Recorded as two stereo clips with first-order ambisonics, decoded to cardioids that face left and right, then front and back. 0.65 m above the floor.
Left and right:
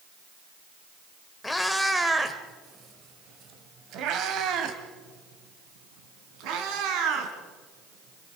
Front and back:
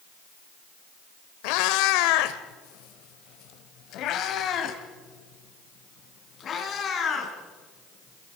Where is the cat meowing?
10° left, 1.1 m; by 8.4 s 65° right, 3.5 m.